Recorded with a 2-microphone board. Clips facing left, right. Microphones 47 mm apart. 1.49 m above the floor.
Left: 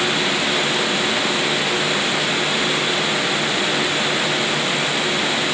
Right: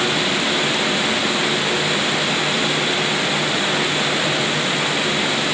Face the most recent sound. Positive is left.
No sound to turn to.